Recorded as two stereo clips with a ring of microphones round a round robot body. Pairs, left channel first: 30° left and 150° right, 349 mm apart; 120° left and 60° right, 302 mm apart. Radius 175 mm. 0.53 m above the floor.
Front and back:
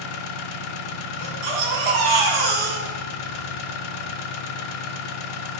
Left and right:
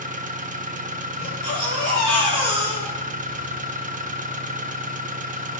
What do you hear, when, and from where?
0.0 s an engine running: 5° left, 0.7 m
1.2 s a baby crying: 135° right, 2.5 m